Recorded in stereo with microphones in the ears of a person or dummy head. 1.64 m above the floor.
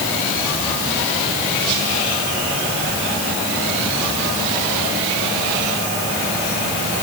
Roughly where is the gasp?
I don't hear a gasp.